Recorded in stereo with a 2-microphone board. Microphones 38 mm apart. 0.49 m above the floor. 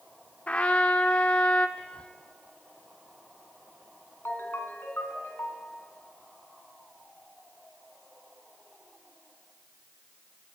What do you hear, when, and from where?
0.5 s a trumpet: 35° left (ahead or behind), 1.4 m
1.8 s whispering: 30° left (ahead or behind), 0.7 m
4.2 s a ringtone: 65° left (ahead or behind), 3.5 m